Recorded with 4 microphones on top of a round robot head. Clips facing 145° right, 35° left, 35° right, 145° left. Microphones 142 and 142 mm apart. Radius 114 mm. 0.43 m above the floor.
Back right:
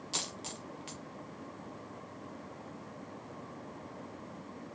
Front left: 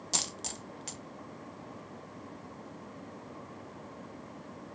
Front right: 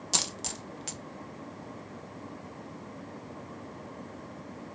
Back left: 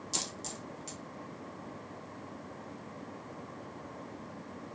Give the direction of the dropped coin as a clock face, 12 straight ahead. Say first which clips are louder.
Front left 2 dB, front right 4 dB; 12 o'clock.